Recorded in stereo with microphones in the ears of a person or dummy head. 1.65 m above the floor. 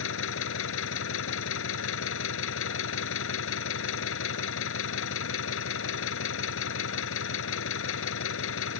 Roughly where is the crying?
No crying in this recording.